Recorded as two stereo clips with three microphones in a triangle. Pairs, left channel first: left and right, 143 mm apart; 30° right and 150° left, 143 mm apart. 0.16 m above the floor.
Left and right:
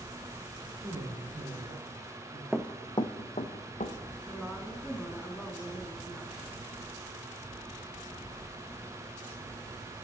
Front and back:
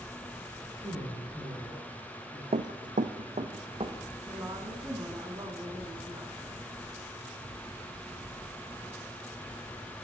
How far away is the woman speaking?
About 1.3 m.